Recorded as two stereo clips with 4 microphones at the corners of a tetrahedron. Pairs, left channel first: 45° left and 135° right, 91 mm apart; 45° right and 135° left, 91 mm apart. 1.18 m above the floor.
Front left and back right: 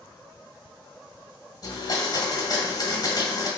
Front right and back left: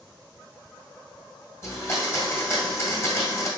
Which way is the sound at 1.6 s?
10° left.